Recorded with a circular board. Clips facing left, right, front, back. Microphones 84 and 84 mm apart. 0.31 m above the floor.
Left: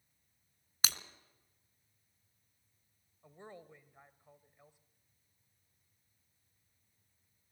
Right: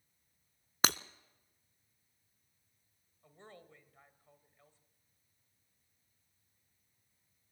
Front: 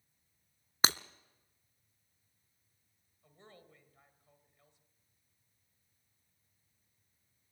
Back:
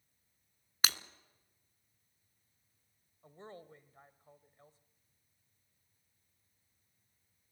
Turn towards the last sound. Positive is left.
turn(degrees=155)